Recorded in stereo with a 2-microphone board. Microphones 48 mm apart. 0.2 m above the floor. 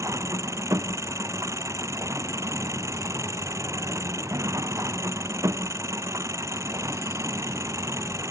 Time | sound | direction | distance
0.0 | an engine running | 90° right | ?